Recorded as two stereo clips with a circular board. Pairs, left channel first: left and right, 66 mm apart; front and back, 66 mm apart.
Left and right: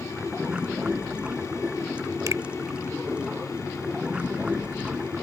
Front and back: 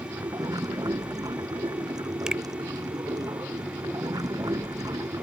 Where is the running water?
165° right.